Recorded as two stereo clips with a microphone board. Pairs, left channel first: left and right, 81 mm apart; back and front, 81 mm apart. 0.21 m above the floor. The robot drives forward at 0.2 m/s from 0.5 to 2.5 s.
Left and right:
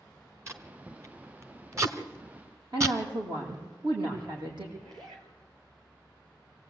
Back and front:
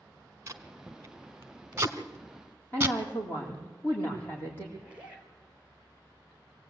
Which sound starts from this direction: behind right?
A woman speaking, at 2.7 s.